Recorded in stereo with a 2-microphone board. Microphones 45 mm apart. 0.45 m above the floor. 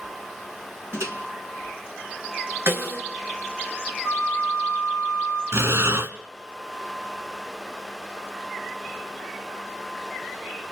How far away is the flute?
About 7 m.